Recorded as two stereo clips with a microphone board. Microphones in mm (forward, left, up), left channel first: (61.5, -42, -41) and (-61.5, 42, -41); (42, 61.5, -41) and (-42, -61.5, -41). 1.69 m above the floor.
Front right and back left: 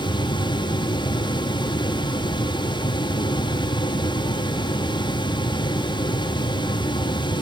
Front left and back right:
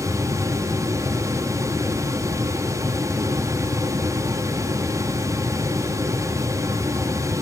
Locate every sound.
Only background noise.